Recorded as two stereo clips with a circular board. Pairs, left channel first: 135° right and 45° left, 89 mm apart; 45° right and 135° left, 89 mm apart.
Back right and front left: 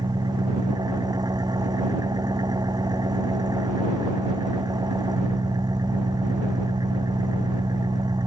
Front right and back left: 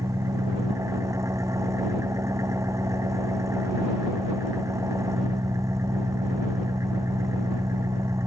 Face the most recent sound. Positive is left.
turn(degrees=85)